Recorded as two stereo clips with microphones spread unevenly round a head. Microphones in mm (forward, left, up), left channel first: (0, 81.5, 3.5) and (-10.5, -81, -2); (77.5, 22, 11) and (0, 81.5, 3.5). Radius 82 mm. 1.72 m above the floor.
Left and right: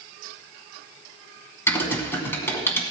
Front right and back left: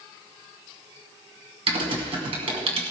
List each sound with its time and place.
1.7 s typing on a keyboard: 155° left, 2.5 m